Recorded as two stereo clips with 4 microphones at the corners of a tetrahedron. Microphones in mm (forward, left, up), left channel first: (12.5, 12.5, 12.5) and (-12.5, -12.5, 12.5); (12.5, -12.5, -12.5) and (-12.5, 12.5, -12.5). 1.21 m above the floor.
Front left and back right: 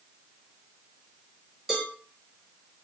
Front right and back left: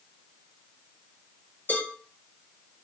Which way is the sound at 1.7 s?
50° right.